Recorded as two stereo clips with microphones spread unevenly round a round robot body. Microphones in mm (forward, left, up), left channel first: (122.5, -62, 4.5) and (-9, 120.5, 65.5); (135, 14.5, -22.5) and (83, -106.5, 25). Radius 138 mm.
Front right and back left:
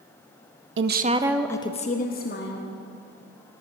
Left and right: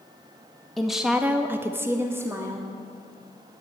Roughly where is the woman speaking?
Behind left.